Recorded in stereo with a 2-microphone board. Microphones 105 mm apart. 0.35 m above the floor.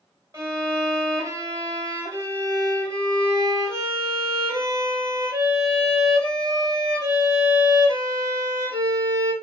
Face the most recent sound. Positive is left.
turn(degrees=-30)  # may be behind; listen again after turning